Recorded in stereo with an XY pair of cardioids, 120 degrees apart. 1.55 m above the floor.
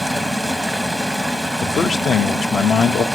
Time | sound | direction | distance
0.0 | running water | straight ahead | 0.8 m
1.6 | a man speaking | 35° left | 0.7 m